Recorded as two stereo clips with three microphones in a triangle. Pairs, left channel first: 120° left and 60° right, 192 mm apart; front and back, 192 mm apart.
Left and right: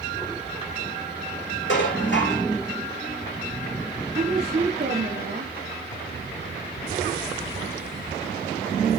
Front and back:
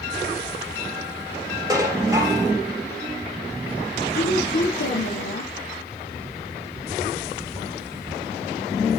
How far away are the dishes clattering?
About 7.5 m.